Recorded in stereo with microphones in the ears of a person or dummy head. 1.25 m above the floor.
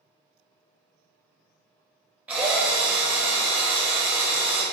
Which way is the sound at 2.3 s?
10° right (ahead or behind).